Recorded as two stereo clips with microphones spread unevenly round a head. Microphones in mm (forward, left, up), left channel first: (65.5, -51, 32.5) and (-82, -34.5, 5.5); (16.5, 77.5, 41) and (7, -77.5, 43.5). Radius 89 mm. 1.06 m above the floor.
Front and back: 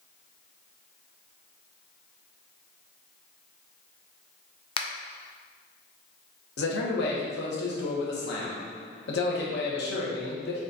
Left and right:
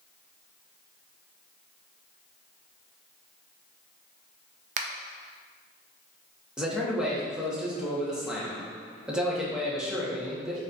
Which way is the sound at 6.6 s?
10° right.